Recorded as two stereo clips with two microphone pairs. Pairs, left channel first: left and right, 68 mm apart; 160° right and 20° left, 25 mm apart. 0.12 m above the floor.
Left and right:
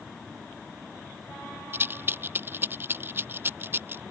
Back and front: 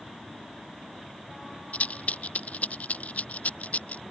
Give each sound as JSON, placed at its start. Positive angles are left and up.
{"t": 1.7, "sound": "a rattle", "azimuth_deg": -145}